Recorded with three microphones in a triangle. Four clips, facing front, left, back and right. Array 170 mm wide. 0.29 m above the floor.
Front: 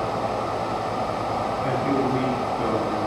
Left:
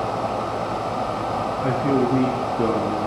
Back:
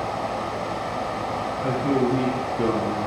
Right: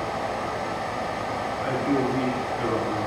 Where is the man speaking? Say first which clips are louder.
Left 3 dB, back 3 dB; 105° left, 4 m; by 3.1 s 125° left, 3 m.